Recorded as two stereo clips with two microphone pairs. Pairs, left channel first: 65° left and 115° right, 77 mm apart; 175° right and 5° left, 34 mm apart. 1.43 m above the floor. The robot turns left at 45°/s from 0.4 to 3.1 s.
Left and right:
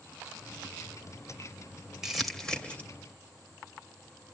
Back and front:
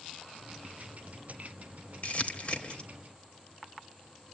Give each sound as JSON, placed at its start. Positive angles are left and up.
{"t": 2.0, "sound": "crumpling", "azimuth_deg": 165, "distance_m": 1.7}